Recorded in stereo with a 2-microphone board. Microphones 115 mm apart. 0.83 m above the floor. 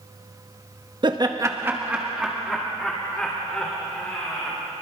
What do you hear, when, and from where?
1.0 s laughter: 45° right (ahead or behind), 1.2 m; by 4.6 s 15° left (ahead or behind), 4.5 m